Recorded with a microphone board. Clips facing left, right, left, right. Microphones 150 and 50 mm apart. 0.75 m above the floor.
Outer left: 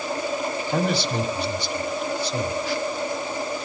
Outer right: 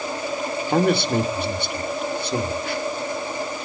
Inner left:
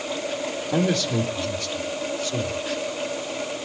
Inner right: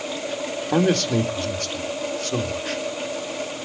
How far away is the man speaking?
About 2.5 m.